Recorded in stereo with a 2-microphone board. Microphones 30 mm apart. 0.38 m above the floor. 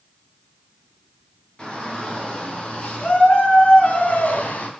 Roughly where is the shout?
Left.